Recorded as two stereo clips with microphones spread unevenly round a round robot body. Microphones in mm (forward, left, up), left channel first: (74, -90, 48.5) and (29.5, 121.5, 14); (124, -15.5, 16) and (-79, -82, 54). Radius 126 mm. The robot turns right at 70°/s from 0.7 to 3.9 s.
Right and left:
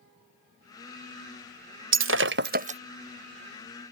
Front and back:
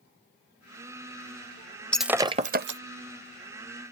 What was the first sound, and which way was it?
Breaking glass, 100° left.